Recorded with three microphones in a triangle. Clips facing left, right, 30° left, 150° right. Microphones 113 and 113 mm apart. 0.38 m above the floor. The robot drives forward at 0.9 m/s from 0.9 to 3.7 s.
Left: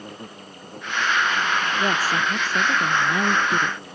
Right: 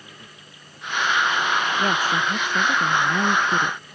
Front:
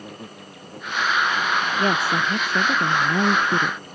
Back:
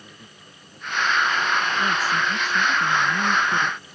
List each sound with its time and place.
0.0 s an insect: 55° left; by 4.0 s 65° left
1.8 s a woman speaking: 5° left; by 3.8 s 10° left